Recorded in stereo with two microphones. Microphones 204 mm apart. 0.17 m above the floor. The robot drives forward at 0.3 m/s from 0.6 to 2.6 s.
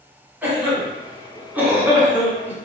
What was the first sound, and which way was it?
A cough, 10° right (ahead or behind).